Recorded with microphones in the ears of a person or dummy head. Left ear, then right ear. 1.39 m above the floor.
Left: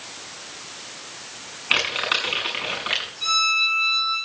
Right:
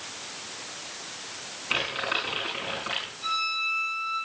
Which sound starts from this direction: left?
A violin, at 3.2 s.